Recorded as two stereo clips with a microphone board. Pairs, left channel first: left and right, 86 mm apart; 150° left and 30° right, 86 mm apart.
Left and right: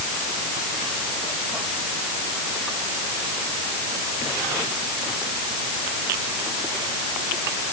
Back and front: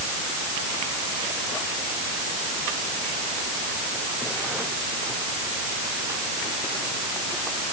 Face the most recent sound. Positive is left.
No sound to turn to.